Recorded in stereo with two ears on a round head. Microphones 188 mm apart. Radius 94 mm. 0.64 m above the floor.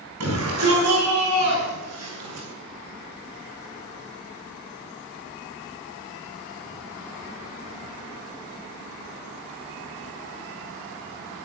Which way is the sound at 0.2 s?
75° right (ahead or behind).